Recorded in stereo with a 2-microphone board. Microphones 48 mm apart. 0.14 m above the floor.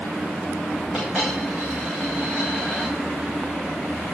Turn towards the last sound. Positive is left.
turn(degrees=-15)  # may be behind; listen again after turning